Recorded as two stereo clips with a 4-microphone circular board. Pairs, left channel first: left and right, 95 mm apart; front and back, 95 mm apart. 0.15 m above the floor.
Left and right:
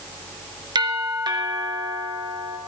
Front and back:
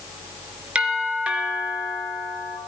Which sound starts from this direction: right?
A doorbell, at 0.8 s.